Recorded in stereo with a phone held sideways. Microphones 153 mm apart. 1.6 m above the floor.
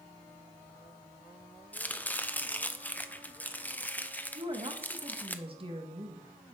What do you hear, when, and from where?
1.7 s chopping: 10° left (ahead or behind), 0.7 m
4.3 s a woman speaking: 35° right (ahead or behind), 1.6 m